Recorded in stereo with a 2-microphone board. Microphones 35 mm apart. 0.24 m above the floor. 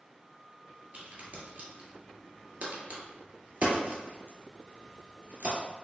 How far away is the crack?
About 1.4 m.